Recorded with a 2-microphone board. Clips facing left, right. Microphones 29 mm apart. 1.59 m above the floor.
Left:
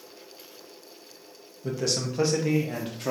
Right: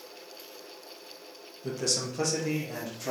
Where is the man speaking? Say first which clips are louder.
Left 3 dB; centre (ahead or behind), 0.9 m; by 3.1 s 50° left (ahead or behind), 0.9 m.